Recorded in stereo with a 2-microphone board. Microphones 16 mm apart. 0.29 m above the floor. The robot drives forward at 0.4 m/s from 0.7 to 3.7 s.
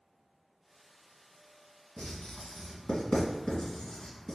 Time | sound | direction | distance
2.0 | writing | 60° left (ahead or behind) | 1.5 m